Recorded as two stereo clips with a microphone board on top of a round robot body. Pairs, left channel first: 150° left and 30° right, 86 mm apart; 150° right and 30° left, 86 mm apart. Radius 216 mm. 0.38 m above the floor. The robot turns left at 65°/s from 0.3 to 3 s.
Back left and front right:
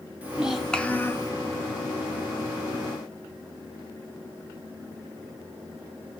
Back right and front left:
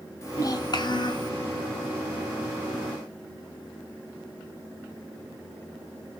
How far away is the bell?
No bell in this recording.